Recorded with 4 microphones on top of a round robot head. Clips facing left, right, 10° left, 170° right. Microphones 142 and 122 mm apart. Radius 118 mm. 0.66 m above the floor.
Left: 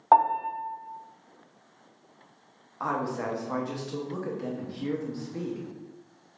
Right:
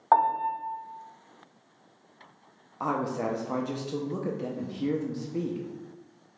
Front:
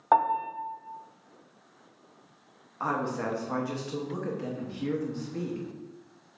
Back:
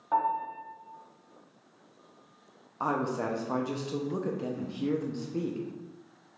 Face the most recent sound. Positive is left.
turn(degrees=-130)